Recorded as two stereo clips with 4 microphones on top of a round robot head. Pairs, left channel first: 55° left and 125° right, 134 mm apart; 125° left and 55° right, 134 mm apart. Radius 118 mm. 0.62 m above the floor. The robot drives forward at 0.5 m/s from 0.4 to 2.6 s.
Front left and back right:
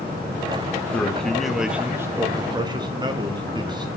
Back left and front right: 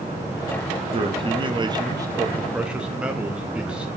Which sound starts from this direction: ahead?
A man speaking, at 0.9 s.